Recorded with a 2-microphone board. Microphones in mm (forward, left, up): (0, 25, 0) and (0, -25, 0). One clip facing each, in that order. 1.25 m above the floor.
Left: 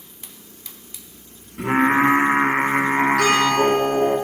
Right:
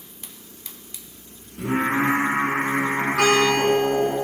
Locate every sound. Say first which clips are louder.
1.6 s singing: left 5 dB; 60° left (ahead or behind), 1.6 m
3.2 s a guitar: left 1 dB; 70° right (ahead or behind), 6 m